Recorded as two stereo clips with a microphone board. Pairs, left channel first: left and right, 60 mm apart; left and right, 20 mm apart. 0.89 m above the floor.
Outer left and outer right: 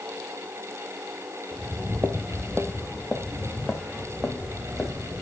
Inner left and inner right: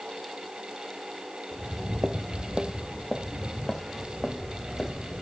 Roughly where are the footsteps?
Right.